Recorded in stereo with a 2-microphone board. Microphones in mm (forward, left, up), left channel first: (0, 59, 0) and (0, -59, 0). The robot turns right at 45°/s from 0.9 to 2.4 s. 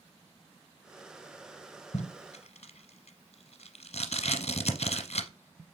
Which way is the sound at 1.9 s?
70° left (ahead or behind).